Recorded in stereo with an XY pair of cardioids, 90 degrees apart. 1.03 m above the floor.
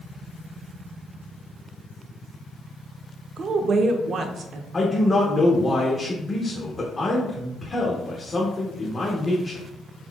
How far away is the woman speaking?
About 0.7 m.